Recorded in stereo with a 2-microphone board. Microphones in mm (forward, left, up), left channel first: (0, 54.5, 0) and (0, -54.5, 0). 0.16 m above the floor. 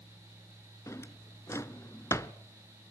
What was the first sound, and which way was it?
A drawer, 25° left (ahead or behind).